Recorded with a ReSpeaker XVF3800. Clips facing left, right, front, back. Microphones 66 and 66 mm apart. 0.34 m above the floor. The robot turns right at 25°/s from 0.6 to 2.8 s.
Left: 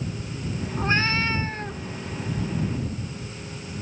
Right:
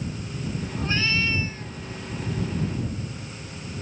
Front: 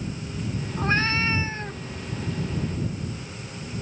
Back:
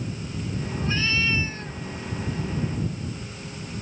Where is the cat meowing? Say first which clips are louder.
Left 3 dB, front 3 dB; 35° left; by 1.8 s 65° left.